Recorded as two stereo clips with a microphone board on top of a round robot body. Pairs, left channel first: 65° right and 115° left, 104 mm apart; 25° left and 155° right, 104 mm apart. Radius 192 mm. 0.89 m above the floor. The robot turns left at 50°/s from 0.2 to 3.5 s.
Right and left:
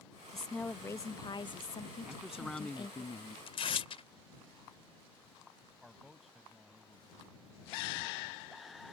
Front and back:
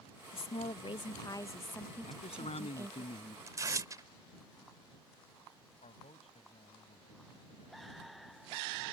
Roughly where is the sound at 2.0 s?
Ahead left.